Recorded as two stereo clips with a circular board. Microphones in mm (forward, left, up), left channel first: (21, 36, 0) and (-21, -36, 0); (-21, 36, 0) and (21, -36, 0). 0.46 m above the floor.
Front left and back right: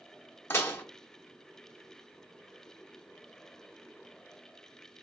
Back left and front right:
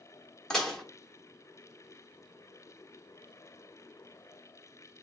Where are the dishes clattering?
45° left, 0.7 m.